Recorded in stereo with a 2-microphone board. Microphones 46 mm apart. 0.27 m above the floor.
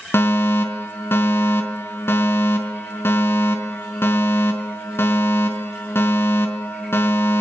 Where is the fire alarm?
65° left (ahead or behind), 4.5 m.